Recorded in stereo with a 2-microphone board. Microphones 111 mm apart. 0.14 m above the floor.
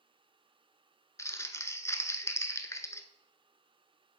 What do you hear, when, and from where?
1.2 s crumpling: 25° left (ahead or behind), 0.6 m